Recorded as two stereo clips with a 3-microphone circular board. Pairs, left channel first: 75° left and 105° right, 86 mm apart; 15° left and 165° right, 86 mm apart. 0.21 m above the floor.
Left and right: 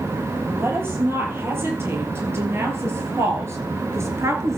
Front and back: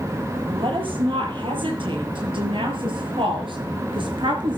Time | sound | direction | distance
0.5 | a woman speaking | 165° right | 5 m